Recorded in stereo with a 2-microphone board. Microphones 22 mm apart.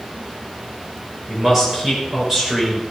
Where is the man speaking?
15° right (ahead or behind), 5.5 m.